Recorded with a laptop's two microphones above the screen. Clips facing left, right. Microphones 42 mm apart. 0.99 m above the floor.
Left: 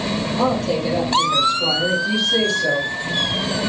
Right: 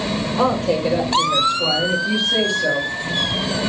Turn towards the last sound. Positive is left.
turn(degrees=-30)  # may be behind; listen again after turning